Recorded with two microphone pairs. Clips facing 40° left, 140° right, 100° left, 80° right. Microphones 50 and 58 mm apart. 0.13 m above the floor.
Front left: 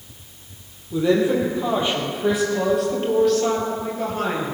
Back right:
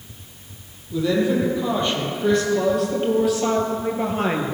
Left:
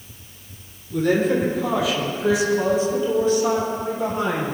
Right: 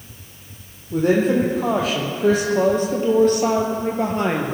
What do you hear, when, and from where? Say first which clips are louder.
0.9 s a woman speaking: front left 2 dB, right 2 dB; 30° right, 5 m; by 4.5 s 90° right, 3 m